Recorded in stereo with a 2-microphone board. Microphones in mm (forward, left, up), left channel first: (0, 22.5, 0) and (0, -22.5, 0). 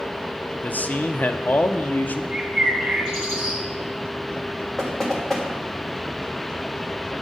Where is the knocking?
10° left (ahead or behind), 1.5 m.